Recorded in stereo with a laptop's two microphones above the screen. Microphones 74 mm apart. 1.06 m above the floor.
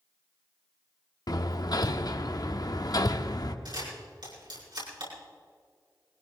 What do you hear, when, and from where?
1.3 s hammering: 60° left (ahead or behind), 0.9 m
3.6 s a camera shutter: 80° right, 6.5 m